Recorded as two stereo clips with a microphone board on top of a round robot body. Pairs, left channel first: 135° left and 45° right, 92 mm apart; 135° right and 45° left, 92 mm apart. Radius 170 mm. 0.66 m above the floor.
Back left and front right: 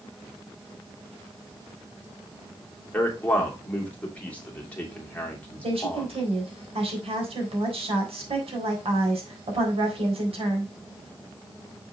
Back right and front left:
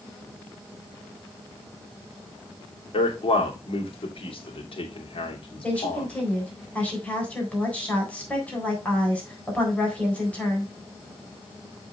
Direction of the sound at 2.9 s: 150° right.